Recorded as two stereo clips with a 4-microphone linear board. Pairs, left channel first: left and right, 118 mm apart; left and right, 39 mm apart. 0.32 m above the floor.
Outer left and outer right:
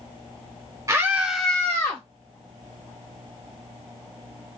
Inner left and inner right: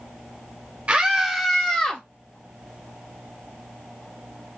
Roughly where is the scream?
Right.